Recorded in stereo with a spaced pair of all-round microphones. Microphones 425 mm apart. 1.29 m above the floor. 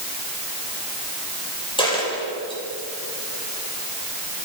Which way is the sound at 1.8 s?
10° left (ahead or behind).